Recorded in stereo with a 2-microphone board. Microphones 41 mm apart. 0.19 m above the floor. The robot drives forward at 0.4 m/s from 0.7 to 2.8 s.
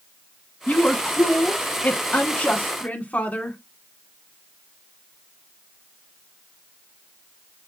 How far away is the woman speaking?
About 1.4 m.